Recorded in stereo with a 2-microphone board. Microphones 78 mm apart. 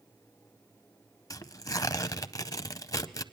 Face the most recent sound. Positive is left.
turn(degrees=50)  # may be behind; listen again after turning